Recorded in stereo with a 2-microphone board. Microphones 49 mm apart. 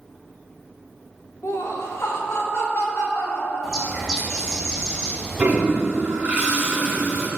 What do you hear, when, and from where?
1.4 s laughter: 75° left (ahead or behind), 0.8 m; by 4.1 s 90° left, 3.5 m
3.6 s a bird: 10° left (ahead or behind), 2.5 m
5.4 s a toilet flushing: 30° right (ahead or behind), 1.8 m